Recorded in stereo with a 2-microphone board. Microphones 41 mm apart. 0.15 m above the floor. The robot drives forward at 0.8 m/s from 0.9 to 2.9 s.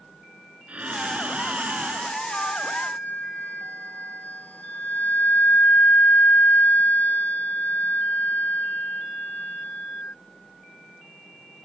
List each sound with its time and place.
0.7 s breathing: 35° right (ahead or behind); by 2.2 s 40° right (ahead or behind)
2.3 s a flute: 45° left (ahead or behind); by 10.1 s 40° left (ahead or behind)